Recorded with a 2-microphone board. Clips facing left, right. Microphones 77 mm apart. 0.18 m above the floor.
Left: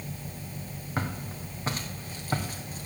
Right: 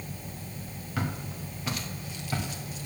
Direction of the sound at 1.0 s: 30° left (ahead or behind).